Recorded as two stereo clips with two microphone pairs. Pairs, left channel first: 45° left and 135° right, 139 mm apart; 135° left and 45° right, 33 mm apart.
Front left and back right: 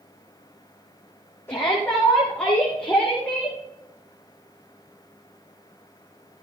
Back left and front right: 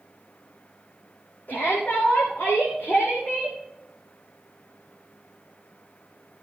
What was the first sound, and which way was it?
A shout, 115° left.